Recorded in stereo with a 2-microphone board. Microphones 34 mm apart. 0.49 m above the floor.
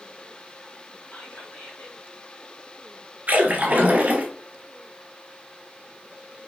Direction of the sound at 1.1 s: 50° left (ahead or behind).